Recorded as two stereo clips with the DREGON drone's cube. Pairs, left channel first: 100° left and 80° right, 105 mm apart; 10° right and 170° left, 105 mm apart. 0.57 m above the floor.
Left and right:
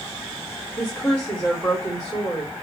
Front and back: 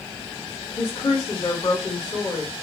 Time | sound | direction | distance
0.8 | a woman speaking | 20° left | 2 m